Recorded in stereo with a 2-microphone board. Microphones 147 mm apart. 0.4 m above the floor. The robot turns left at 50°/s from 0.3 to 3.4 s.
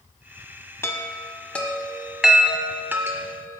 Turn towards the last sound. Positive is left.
turn(degrees=-20)  # may be behind; listen again after turning